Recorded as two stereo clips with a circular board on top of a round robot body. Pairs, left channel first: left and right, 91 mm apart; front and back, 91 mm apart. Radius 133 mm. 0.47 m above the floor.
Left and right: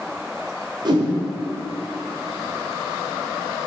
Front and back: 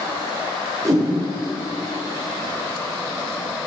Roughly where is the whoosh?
Behind right.